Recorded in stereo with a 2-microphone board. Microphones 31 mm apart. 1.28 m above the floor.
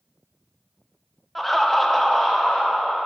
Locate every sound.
1.4 s laughter: centre (ahead or behind), 0.6 m; by 3.1 s 10° left (ahead or behind), 0.9 m